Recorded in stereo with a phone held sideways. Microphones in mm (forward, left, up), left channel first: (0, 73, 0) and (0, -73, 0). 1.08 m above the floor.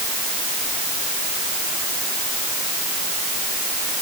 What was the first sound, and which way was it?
Only background noise.